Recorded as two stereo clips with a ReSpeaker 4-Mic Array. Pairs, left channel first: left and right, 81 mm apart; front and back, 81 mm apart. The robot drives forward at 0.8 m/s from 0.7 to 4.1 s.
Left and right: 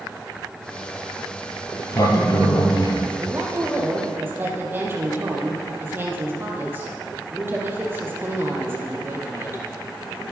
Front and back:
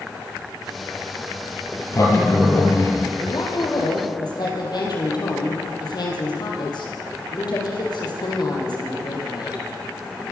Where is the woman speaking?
25° right, 7.5 m.